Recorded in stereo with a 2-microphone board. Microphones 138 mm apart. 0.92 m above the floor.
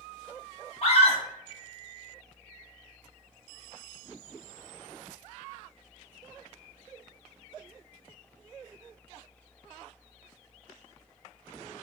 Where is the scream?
45° left (ahead or behind), 1.2 m.